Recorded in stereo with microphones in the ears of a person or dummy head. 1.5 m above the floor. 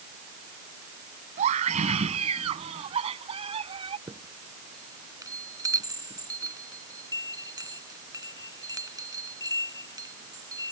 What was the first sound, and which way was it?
A scream, 35° right (ahead or behind).